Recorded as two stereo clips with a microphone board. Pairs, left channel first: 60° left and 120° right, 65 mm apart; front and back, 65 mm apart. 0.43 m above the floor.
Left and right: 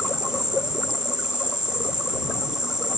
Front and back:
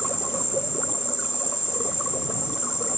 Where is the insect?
35° right.